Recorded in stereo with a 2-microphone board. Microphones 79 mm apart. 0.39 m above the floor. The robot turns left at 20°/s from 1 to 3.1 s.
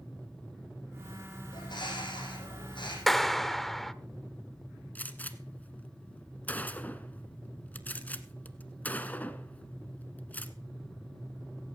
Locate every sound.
1.5 s a bird: 65° left (ahead or behind), 6.5 m; by 3.0 s 85° left, 6.5 m
3.1 s a clap: centre (ahead or behind), 0.7 m
5.0 s a gunshot: 20° left (ahead or behind), 1.0 m